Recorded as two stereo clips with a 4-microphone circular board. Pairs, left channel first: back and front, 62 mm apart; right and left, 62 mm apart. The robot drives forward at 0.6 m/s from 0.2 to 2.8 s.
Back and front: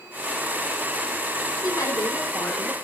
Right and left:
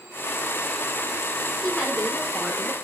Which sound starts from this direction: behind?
A woman speaking, at 1.6 s.